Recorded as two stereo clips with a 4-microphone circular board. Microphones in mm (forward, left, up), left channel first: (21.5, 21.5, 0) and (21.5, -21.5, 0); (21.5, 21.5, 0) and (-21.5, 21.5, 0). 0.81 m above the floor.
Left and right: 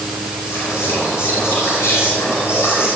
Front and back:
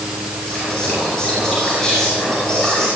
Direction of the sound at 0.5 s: 75° left.